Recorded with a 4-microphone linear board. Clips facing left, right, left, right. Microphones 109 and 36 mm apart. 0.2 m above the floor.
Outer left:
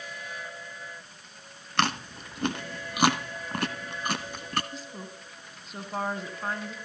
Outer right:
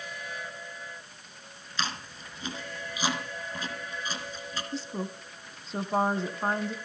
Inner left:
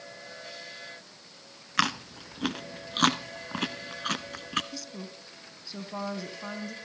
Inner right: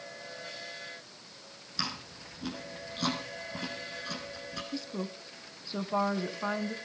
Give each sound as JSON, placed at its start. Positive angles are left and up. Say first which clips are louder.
{"t": 1.8, "sound": "chewing", "louder": "outer left 8 dB, inner left 10 dB", "side_deg": 65, "distance_m": 1.1}
{"t": 4.7, "sound": "a woman speaking", "louder": "outer right 6 dB, inner right 4 dB", "side_deg": -30, "distance_m": 1.5}